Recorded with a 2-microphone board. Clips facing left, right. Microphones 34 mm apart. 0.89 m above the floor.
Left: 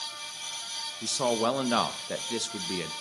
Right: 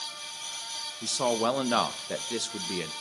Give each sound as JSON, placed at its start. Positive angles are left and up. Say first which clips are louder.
{"t": 1.0, "sound": "a man speaking", "louder": "even", "side_deg": 0, "distance_m": 0.5}